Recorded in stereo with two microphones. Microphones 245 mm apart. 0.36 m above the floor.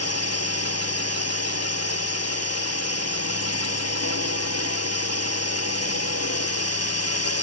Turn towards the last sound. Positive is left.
turn(degrees=80)